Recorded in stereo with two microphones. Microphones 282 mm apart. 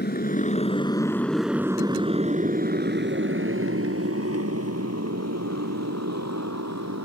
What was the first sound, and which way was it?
A motorcycle, 35° left (ahead or behind).